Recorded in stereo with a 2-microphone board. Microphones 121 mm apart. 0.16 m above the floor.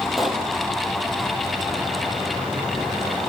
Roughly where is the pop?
Centre.